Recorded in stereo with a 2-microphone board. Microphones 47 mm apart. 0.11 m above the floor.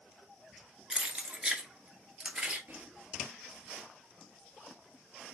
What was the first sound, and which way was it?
Keys jangling, 20° right (ahead or behind).